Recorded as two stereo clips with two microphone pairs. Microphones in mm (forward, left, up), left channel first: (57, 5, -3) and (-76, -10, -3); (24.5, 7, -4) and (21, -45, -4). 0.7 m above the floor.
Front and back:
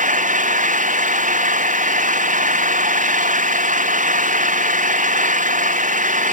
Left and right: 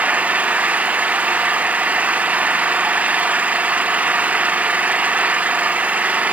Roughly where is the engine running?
Behind right.